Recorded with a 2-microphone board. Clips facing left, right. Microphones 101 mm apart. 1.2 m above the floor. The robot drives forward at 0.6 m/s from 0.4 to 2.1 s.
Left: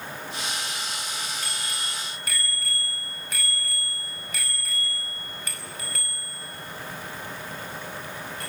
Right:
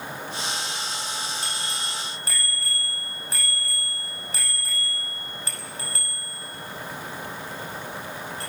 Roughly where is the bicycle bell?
Right.